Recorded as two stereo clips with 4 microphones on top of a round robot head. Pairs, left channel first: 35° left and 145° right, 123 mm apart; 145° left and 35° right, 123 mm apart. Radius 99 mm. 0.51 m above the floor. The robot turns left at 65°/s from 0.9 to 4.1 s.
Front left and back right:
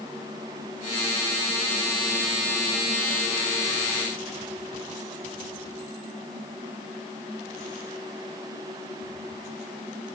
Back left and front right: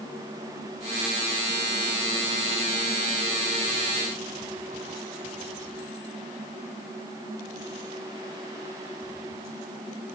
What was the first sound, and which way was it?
Only background noise.